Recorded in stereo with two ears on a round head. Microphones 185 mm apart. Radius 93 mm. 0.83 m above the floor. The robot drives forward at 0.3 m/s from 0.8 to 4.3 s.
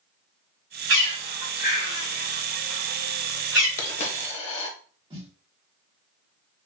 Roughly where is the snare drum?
Right.